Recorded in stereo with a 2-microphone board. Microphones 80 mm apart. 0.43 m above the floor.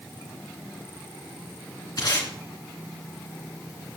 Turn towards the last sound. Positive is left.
turn(degrees=60)  # may be behind; listen again after turning